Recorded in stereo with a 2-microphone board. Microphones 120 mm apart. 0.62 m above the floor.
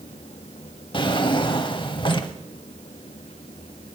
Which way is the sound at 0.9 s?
45° left (ahead or behind).